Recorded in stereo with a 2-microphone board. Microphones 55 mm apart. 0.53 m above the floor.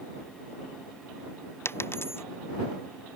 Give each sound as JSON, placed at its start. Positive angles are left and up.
{"t": 1.6, "sound": "a dropped coin", "side_deg": 50}